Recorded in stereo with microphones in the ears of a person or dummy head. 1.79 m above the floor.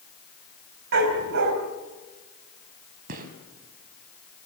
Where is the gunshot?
45° right (ahead or behind), 3.5 m.